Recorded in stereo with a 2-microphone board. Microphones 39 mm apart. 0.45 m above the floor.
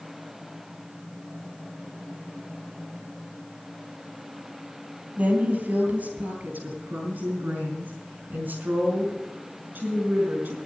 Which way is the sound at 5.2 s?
50° right (ahead or behind).